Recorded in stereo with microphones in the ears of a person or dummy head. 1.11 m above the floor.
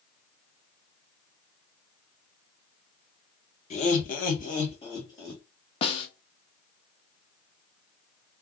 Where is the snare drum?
35° left (ahead or behind), 0.7 m.